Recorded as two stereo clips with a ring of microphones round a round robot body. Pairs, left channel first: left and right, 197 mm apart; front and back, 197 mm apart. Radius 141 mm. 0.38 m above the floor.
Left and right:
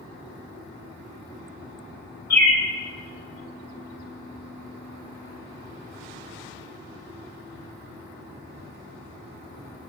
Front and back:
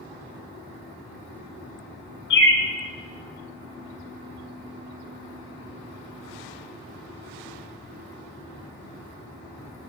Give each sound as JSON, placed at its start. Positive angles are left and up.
{"t": 2.3, "sound": "a bird", "azimuth_deg": 15, "distance_m": 1.3}